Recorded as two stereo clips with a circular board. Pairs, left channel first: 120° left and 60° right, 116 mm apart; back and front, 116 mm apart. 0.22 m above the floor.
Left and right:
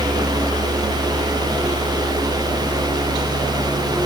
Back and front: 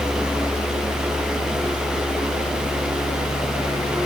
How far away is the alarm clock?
No alarm clock in this recording.